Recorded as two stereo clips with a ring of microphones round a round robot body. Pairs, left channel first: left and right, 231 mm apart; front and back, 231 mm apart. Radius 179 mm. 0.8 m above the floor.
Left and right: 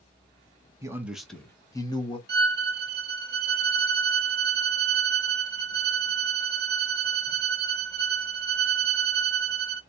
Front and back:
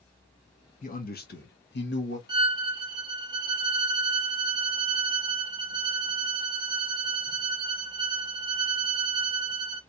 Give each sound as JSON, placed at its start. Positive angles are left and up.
{"t": 0.8, "sound": "a man speaking", "azimuth_deg": -25, "distance_m": 1.1}
{"t": 2.3, "sound": "a violin", "azimuth_deg": -115, "distance_m": 0.6}